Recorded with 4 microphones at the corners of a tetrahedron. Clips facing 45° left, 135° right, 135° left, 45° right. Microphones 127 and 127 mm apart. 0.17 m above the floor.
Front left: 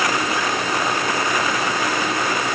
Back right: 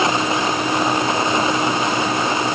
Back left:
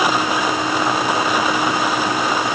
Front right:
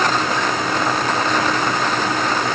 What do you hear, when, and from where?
Only background noise.